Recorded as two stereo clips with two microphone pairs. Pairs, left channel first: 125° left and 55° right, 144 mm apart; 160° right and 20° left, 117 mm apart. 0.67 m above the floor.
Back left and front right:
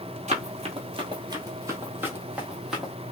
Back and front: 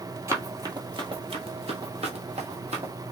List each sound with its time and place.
0.3 s running footsteps: 40° right, 1.0 m; by 2.9 s 35° left, 1.6 m